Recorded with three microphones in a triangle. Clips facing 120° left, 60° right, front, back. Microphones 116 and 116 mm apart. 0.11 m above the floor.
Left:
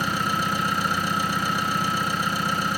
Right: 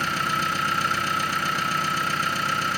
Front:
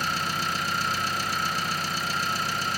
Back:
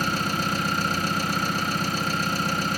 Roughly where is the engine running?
Behind.